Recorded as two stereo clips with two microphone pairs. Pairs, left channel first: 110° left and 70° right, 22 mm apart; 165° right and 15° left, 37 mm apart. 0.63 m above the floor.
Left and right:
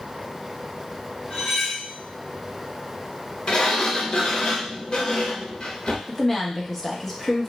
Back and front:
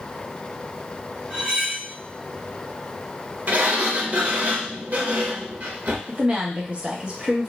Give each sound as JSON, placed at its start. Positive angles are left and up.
{"t": 1.3, "sound": "cutlery clinking", "azimuth_deg": 60, "distance_m": 1.5}
{"t": 3.5, "sound": "a sliding door", "azimuth_deg": 55, "distance_m": 0.7}
{"t": 6.1, "sound": "a woman speaking", "azimuth_deg": 40, "distance_m": 0.6}